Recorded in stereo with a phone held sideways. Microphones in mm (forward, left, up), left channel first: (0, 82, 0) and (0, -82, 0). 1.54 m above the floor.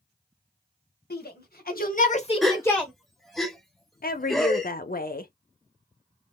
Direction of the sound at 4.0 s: 65° left (ahead or behind).